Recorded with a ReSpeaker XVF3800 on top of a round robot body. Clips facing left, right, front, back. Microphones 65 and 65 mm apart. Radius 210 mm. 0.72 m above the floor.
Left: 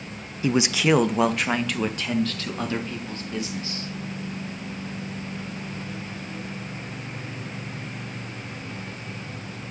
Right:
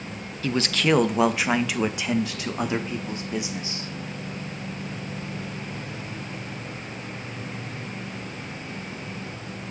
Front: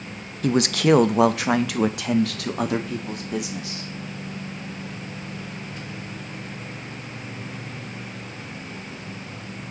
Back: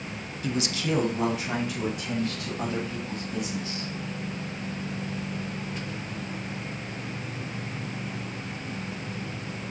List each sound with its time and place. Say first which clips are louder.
0.4 s a man speaking: left 2 dB, front 10 dB; 20° left, 0.8 m; by 3.9 s 20° right, 2.5 m